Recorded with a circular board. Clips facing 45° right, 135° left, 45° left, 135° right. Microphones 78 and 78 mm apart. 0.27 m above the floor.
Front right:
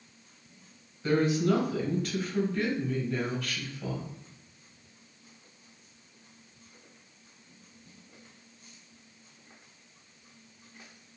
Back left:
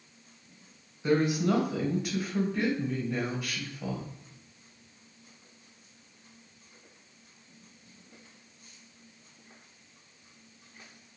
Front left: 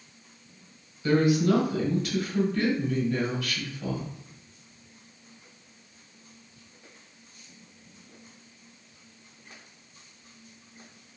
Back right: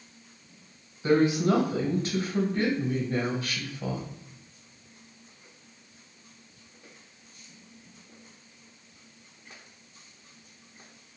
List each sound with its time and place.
1.0 s a woman speaking: 155° right, 1.1 m